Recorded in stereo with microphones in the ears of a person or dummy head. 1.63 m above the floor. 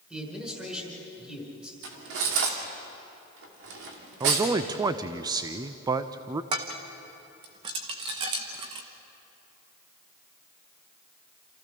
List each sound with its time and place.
0.1 s a man speaking: 5° right (ahead or behind), 5.5 m
1.8 s cutlery clinking: 70° right (ahead or behind), 2.5 m
4.2 s a man speaking: 20° right (ahead or behind), 0.6 m
6.5 s dishes clattering: 25° right (ahead or behind), 1.0 m